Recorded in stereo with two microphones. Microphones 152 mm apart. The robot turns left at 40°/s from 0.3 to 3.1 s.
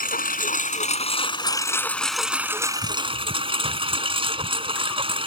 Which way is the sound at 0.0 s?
75° left.